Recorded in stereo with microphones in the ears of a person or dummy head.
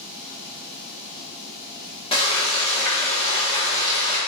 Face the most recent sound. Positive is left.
turn(degrees=30)  # may be behind; listen again after turning